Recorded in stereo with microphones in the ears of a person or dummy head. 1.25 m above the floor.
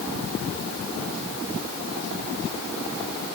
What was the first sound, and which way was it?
Only background noise.